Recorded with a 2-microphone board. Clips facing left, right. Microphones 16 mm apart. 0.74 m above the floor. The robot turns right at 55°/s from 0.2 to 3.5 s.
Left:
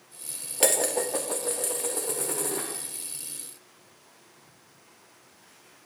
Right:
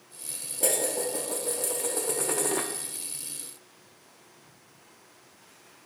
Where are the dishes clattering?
105° left, 0.6 m; by 2.7 s 140° right, 0.6 m.